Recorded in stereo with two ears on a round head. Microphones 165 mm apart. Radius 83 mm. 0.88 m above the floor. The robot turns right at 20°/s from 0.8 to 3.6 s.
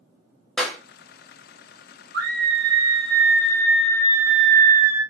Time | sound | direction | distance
0.6 | a clap | 5° left (ahead or behind) | 1.2 m
2.1 | a scream | 50° right (ahead or behind) | 1.2 m